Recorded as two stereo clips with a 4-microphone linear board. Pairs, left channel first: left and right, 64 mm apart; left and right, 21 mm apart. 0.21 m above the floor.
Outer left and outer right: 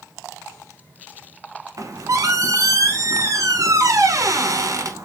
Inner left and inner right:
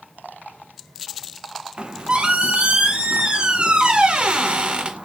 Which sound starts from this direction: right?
A squeak, at 1.8 s.